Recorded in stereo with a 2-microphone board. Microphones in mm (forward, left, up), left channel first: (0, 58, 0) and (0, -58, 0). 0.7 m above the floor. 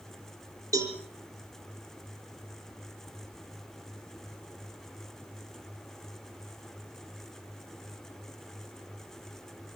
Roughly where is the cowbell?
Right.